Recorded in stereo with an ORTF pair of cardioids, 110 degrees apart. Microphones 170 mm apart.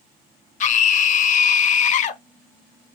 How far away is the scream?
About 0.6 m.